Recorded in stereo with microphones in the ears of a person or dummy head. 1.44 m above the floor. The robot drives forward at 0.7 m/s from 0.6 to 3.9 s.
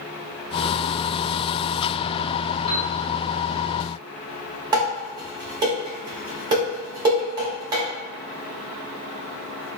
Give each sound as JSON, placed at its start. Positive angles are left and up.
{"t": 2.7, "sound": "a piano", "side_deg": 45, "distance_m": 2.0}
{"t": 4.7, "sound": "dishes clattering", "side_deg": -15, "distance_m": 1.4}